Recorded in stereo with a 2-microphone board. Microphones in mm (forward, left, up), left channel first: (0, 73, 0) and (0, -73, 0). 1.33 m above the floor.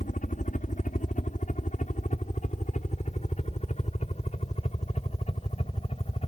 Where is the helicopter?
60° left (ahead or behind); by 6.3 s 40° left (ahead or behind).